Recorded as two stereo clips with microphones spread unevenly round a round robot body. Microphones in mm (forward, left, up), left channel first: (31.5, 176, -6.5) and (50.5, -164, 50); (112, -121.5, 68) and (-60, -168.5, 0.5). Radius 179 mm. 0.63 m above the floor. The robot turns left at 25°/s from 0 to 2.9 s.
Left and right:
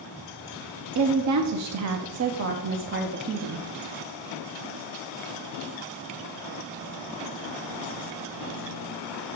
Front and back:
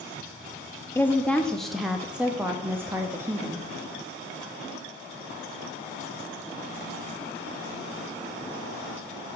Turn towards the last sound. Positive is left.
turn(degrees=-135)